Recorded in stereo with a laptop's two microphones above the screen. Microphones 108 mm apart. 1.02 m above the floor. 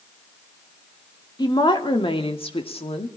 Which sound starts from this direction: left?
A woman speaking, at 1.4 s.